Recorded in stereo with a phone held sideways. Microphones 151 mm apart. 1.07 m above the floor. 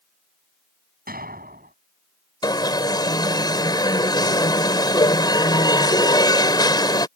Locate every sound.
1.1 s an explosion: 85° right
2.4 s an alarm: 30° left (ahead or behind)